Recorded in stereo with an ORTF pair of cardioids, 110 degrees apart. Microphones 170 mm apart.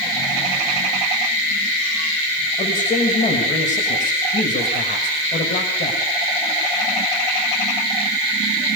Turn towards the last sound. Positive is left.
turn(degrees=45)